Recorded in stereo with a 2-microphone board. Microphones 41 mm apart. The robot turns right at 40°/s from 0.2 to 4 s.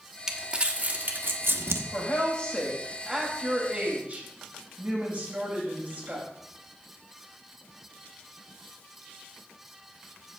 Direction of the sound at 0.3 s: 10° right (ahead or behind).